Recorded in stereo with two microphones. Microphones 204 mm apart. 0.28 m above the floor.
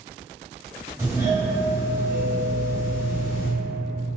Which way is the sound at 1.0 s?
15° right (ahead or behind).